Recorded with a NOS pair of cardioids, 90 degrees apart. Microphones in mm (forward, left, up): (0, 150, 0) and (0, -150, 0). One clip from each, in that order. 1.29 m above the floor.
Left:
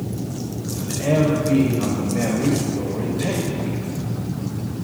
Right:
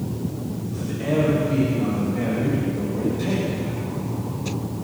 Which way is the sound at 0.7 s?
40° left.